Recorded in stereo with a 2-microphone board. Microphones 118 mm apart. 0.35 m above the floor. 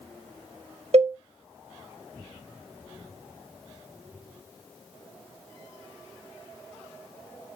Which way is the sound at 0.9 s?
60° right (ahead or behind).